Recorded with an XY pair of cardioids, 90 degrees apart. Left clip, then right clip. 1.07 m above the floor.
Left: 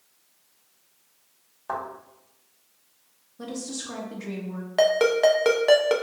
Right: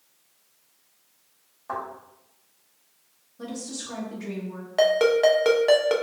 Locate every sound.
1.7 s a thud: 40° left, 1.9 m
3.4 s a woman speaking: 20° left, 1.2 m
4.8 s a ringtone: 10° left, 0.6 m